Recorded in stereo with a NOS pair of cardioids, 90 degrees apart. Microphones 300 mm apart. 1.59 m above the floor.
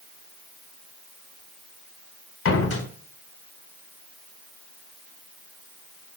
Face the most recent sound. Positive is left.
turn(degrees=50)